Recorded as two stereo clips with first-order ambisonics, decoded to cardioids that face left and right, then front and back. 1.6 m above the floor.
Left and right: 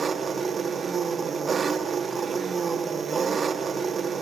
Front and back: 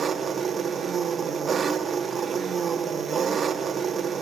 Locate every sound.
0.0 s an engine running: 135° right, 1.1 m